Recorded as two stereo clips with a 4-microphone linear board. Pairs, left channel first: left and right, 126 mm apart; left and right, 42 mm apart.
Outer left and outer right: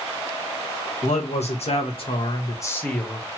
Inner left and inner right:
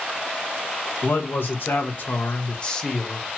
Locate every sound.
1.0 s a man speaking: 70° left (ahead or behind), 1.3 m; by 3.4 s 10° right (ahead or behind), 0.8 m